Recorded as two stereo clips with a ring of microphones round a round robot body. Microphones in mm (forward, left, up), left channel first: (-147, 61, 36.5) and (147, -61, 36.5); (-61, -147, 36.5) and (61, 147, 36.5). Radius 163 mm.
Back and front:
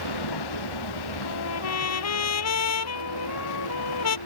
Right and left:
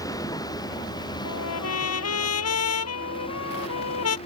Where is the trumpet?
160° right.